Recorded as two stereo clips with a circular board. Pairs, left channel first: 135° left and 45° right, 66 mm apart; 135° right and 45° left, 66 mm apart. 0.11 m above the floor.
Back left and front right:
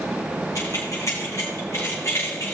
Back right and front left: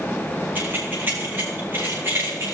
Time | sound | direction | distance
0.6 | keys jangling | 105° left | 5 m